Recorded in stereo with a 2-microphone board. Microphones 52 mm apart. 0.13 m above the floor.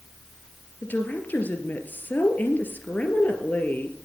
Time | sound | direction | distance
0.8 | a woman speaking | 35° left (ahead or behind) | 2.5 m